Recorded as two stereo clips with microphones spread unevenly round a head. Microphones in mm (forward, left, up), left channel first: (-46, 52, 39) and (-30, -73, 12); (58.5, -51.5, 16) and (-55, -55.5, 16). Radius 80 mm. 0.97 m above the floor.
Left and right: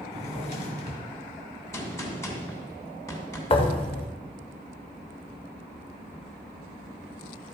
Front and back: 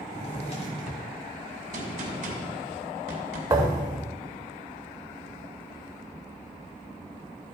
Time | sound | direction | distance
0.1 | a drawer | 55° left | 1.6 m
1.7 | a gunshot | 160° left | 2.5 m
3.5 | a thud | 115° left | 0.9 m